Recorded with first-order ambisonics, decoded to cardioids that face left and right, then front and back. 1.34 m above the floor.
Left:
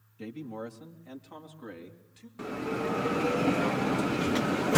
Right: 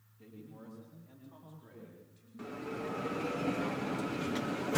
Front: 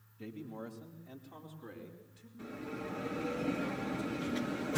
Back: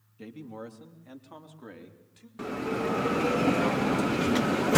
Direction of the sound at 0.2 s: 125° left.